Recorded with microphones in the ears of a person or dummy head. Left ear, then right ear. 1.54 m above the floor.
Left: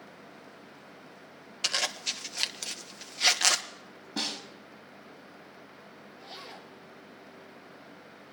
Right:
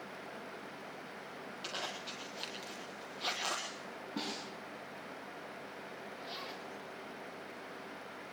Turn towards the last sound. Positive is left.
turn(degrees=0)  # may be behind; listen again after turning